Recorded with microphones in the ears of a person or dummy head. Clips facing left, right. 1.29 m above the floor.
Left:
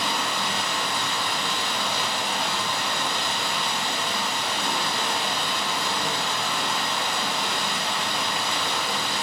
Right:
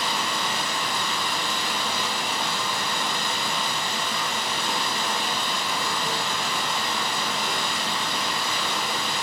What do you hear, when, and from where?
0.0 s running water: 55° left (ahead or behind), 1.7 m